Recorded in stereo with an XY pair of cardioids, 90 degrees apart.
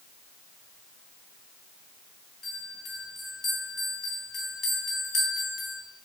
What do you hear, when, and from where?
2.4 s a bell: 70° left, 1.5 m